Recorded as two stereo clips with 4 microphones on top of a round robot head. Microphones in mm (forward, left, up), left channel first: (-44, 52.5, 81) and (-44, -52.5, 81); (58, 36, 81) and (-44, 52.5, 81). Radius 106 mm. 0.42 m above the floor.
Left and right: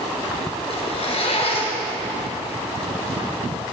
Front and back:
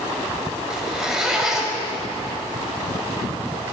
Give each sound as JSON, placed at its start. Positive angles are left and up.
{"t": 0.7, "sound": "a zipper", "azimuth_deg": 85, "distance_m": 1.8}